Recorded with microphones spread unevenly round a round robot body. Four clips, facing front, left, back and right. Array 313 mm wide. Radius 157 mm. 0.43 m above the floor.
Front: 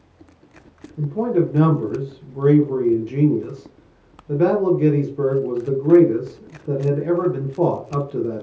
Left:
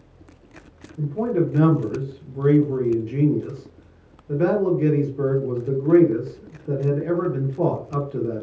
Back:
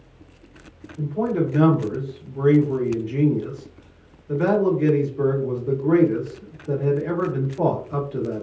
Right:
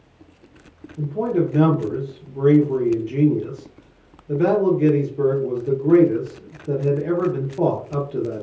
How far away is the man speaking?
About 0.9 m.